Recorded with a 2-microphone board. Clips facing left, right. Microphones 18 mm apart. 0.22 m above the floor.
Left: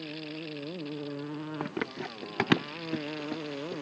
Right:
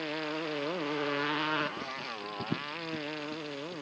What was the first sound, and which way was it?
A motorcycle, 80° right.